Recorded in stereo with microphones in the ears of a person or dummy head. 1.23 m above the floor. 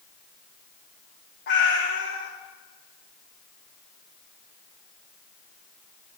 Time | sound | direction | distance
1.5 | a cat meowing | 45° left (ahead or behind) | 0.9 m